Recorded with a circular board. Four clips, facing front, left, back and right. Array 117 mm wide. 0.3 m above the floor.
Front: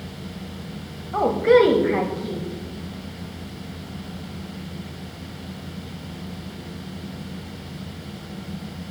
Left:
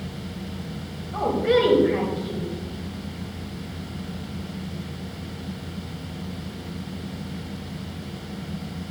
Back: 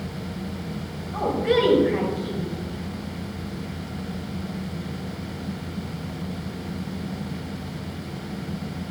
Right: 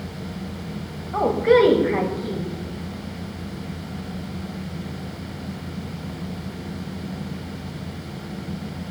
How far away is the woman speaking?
About 1.6 m.